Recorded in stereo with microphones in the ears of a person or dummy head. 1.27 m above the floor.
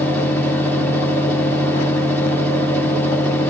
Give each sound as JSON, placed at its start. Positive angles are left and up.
{"t": 0.0, "sound": "a fan", "side_deg": 10, "distance_m": 0.8}